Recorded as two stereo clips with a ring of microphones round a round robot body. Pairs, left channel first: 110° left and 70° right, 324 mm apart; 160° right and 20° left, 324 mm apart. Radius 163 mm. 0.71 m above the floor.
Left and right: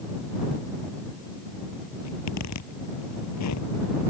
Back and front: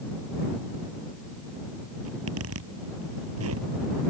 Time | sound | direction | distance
2.0 | a zipper | 70° left | ?